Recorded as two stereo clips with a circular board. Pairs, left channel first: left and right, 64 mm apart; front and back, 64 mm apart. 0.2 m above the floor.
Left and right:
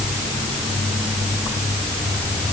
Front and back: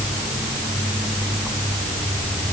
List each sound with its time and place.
Only background noise.